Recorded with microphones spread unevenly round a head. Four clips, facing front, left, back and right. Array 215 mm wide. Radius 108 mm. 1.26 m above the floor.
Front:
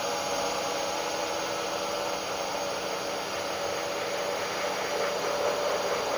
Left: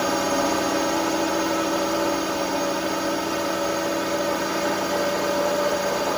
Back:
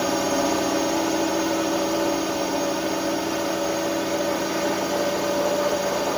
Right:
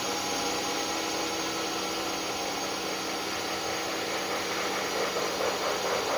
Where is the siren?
No siren in this recording.